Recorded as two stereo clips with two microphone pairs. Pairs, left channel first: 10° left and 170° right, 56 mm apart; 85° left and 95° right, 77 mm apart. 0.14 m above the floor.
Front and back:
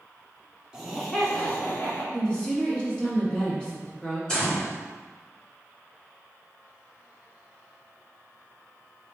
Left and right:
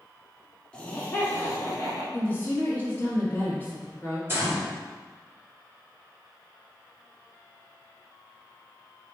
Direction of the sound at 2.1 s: 60° left.